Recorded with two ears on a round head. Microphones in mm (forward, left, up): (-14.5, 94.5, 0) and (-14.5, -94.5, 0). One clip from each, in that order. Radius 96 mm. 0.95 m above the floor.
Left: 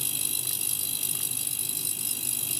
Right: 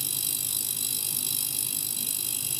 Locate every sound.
Only background noise.